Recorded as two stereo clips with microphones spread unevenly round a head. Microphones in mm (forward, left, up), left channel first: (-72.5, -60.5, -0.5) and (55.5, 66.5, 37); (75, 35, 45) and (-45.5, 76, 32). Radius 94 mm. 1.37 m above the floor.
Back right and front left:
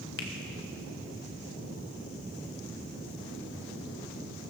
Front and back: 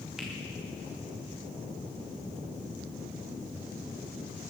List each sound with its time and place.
0.2 s a finger snap: 110° right, 1.7 m